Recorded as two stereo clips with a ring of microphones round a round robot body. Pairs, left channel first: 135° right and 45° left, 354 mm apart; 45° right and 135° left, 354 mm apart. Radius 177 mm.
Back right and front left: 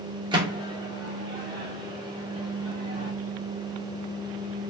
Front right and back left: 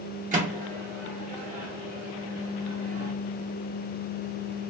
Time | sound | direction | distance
0.3 | a microwave | 105° left | 0.6 m